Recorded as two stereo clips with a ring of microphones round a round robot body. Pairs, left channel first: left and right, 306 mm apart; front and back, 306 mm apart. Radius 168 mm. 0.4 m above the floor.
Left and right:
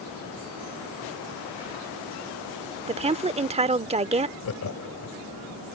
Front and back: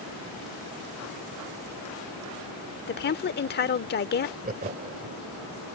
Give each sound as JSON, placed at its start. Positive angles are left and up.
{"t": 2.9, "sound": "a woman speaking", "azimuth_deg": -30}
{"t": 4.4, "sound": "laughter", "azimuth_deg": 125}